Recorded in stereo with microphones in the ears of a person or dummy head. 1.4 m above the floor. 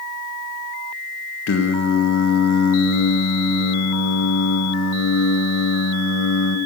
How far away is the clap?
I don't hear a clap.